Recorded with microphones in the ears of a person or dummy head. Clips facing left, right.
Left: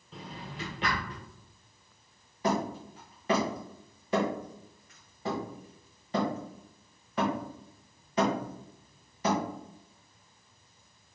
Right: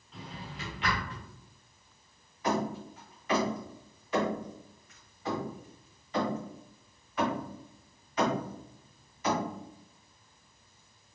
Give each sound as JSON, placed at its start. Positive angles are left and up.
{"t": 0.1, "sound": "a drawer", "side_deg": 30, "distance_m": 1.1}
{"t": 2.4, "sound": "hammering", "side_deg": 30, "distance_m": 1.4}